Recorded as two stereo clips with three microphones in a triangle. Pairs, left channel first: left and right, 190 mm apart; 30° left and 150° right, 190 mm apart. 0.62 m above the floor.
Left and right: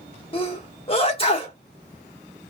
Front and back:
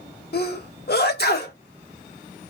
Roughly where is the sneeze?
Ahead left.